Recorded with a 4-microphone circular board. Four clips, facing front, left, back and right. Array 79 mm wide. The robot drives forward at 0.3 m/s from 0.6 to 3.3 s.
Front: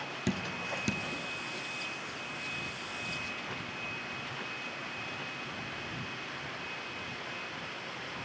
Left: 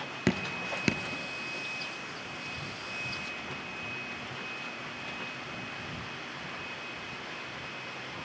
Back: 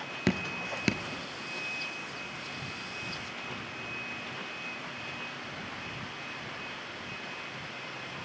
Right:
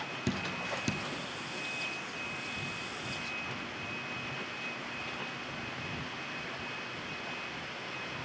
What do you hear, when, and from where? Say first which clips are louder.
0.3 s dripping: left 5 dB, back 4 dB; 125° left, 0.9 m; by 1.0 s 135° left, 0.9 m